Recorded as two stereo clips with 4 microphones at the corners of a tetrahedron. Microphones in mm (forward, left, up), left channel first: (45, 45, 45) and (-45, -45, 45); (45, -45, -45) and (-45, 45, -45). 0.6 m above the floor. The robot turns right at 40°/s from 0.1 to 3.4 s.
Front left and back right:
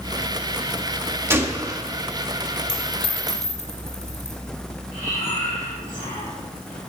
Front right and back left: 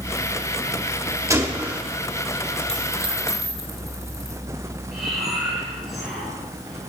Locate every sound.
1.3 s a gunshot: 170° left, 1.3 m; by 1.8 s 165° right, 1.3 m
2.7 s a dropped coin: 10° right, 3 m; by 4.4 s 15° left, 3 m
4.9 s breathing: 45° left, 4.5 m